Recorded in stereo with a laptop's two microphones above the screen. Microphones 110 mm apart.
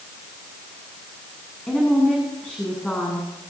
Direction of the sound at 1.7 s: 10° left (ahead or behind).